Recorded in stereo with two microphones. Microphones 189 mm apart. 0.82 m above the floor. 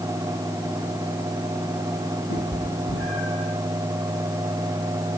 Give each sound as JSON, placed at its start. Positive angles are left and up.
{"t": 2.3, "sound": "a cat meowing", "side_deg": 85, "distance_m": 7.5}